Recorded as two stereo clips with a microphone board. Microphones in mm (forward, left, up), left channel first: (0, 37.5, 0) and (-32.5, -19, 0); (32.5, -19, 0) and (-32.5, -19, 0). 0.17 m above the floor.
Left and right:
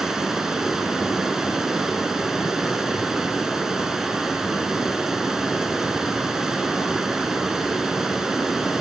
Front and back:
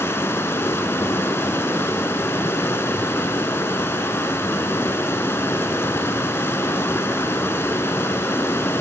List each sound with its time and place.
0.0 s running water: 40° right, 0.8 m